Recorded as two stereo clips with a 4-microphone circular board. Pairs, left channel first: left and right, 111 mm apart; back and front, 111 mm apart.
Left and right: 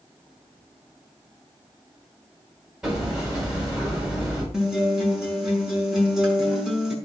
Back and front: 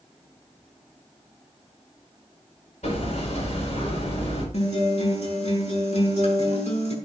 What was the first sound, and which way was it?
Hammering, 175° right.